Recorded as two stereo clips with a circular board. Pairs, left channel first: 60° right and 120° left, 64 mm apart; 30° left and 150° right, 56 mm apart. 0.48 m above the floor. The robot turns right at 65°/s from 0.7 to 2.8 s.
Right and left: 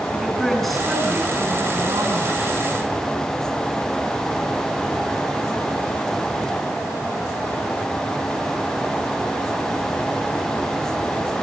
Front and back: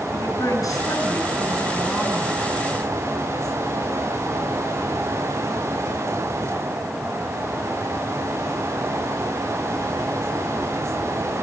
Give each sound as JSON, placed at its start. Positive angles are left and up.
{"t": 0.1, "sound": "a woman speaking", "azimuth_deg": 30, "distance_m": 5.5}